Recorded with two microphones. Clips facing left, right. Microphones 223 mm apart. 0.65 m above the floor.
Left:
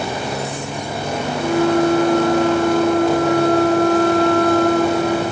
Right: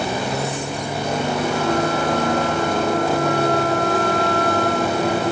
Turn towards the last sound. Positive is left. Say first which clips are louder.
# left 8 dB
turn(degrees=50)  # may be behind; listen again after turning